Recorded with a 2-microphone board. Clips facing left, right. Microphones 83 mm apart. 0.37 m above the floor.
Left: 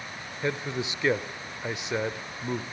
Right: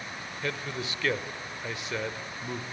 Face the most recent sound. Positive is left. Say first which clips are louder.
# left 4 dB
turn(degrees=20)  # may be behind; listen again after turning